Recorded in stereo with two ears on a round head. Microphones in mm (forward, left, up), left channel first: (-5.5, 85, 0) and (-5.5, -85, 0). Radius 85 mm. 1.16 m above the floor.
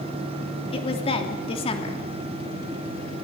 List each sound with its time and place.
0.7 s a woman speaking: 30° left (ahead or behind), 3 m